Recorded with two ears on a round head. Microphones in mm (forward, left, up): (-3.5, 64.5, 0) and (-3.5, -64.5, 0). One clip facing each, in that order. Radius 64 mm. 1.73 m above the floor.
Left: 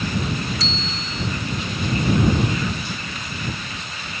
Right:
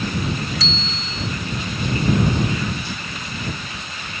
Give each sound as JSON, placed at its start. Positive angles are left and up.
{"t": 0.6, "sound": "a bicycle bell", "side_deg": -70}